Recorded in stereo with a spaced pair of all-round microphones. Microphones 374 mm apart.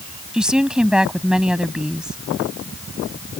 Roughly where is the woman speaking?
Centre.